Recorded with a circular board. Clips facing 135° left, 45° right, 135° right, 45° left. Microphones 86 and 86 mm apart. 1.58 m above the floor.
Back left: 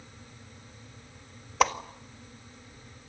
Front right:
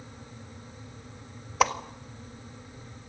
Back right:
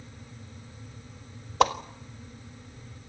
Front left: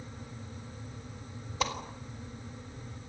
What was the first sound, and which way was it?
A whoosh, 135° right.